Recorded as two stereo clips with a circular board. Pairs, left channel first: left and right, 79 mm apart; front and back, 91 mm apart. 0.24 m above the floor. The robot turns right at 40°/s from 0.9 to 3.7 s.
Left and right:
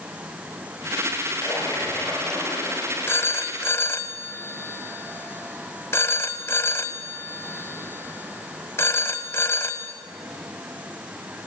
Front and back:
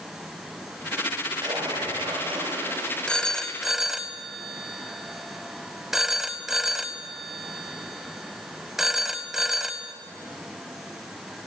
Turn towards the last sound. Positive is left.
turn(degrees=95)